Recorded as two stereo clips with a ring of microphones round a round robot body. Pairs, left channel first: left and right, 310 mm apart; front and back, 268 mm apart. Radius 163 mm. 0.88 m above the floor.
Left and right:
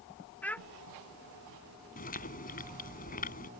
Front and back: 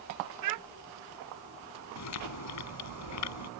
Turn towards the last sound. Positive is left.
turn(degrees=25)